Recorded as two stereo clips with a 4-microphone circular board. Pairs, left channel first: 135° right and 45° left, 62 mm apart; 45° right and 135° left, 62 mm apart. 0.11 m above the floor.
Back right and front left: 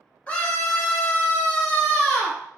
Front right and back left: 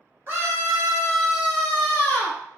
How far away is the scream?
About 1.5 m.